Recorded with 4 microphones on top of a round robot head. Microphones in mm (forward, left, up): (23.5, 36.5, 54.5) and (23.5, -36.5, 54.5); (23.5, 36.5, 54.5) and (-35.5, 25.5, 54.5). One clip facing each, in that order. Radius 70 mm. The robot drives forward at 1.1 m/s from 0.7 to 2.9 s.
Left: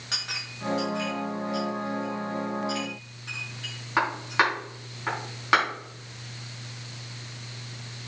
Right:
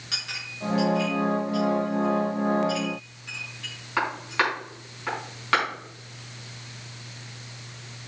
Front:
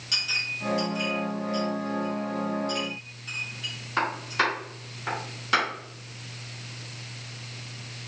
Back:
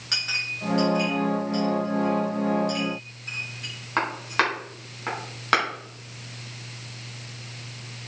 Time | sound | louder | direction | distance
0.1 | a clink | even, back 1 dB | 150° left | 3 m